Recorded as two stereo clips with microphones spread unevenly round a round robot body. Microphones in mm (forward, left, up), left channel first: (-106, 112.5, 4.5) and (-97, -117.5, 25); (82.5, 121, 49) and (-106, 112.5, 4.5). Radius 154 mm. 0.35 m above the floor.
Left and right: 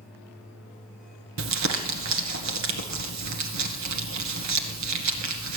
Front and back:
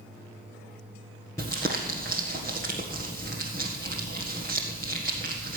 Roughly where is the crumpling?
Right.